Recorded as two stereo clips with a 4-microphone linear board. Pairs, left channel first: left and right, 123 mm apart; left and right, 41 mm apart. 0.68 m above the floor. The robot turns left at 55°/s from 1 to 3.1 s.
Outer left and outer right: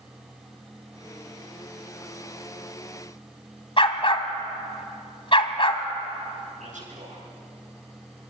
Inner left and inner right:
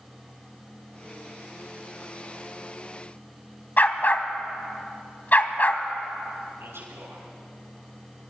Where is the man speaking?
85° right, 9.5 m.